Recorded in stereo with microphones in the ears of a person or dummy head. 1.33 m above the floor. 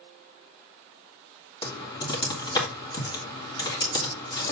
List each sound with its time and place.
1.6 s typing on a keyboard: 30° left (ahead or behind), 2 m